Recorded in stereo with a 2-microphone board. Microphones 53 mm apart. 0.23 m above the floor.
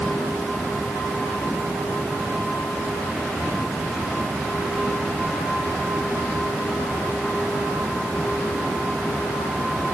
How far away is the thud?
I don't hear a thud.